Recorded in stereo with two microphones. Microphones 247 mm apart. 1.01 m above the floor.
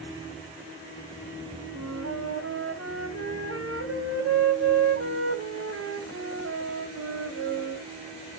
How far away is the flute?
About 2.5 m.